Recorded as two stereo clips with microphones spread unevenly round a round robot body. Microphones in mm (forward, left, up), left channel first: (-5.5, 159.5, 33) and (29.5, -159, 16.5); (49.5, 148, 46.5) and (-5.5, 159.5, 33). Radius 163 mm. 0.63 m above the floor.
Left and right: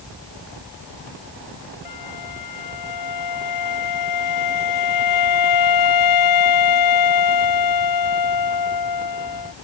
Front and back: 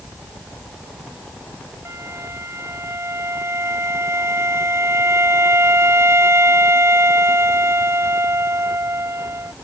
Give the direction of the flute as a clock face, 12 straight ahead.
8 o'clock.